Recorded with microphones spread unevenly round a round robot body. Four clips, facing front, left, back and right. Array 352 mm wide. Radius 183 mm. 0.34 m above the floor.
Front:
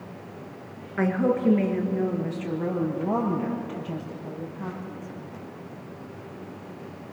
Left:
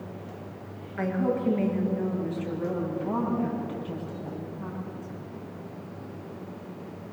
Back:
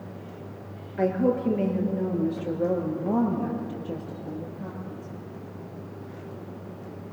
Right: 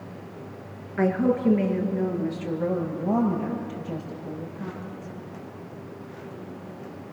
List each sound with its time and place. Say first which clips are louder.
1.0 s a woman speaking: right 5 dB, even; 15° right, 5 m; by 5.2 s 10° right, 11.5 m